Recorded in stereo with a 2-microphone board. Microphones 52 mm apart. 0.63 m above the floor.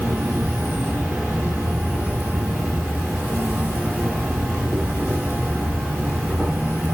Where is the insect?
45° right (ahead or behind), 1.3 m.